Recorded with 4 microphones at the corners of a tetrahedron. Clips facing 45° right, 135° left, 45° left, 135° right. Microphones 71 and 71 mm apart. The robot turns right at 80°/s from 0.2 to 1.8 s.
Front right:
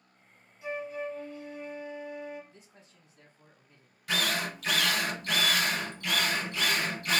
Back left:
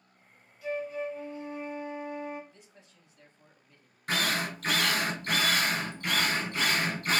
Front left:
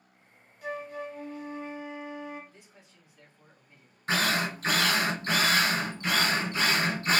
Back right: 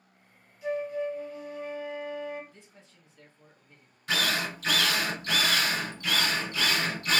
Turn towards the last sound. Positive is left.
turn(degrees=95)